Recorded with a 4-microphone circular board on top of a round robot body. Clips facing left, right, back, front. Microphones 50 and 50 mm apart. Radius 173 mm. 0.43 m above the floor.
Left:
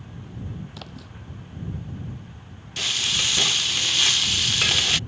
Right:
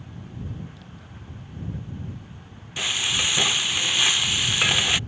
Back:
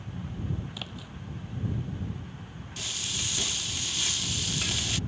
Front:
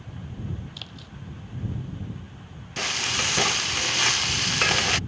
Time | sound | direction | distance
0.7 | a splash | 105° left | ?
2.8 | frying | 15° right | ?